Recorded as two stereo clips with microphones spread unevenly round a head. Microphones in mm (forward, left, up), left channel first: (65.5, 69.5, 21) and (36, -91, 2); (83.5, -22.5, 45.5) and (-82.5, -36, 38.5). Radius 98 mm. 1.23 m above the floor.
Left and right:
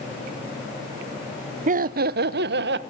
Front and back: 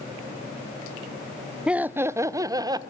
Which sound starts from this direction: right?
Laughter, at 1.7 s.